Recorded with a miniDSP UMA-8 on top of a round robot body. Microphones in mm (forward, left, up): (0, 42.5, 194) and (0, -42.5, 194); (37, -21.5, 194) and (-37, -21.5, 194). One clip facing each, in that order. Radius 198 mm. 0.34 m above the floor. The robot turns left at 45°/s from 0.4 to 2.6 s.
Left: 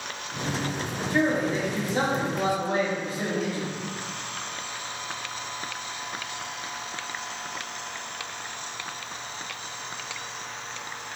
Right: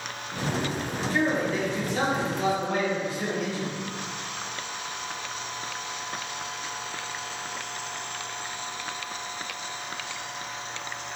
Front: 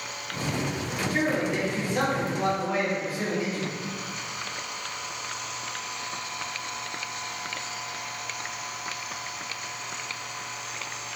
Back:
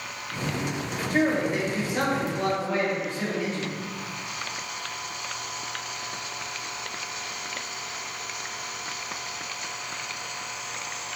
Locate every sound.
1.1 s a man speaking: 145° left, 1.4 m; by 3.7 s 80° left, 1.4 m